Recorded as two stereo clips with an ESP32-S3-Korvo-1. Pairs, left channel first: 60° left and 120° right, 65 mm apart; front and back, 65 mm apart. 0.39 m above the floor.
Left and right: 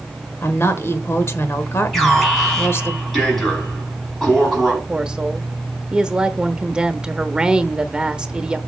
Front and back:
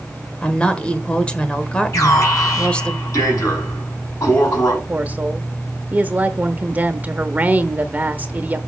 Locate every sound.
0.4 s a woman speaking: 65° left, 1.4 m
1.9 s an alarm: 30° right, 5.5 m
4.9 s a woman speaking: straight behind, 1.0 m